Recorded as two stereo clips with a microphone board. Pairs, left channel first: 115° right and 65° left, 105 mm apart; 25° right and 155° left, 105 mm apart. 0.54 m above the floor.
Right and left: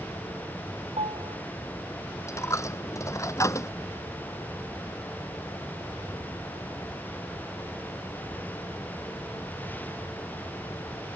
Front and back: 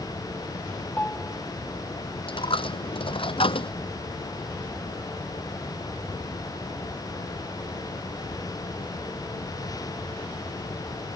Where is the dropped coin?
50° right.